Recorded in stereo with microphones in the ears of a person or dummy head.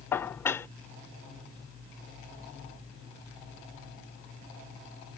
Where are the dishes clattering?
5° left (ahead or behind).